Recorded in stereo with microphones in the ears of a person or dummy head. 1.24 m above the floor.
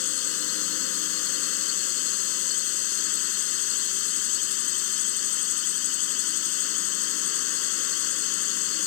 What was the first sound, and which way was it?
A drone, 80° left.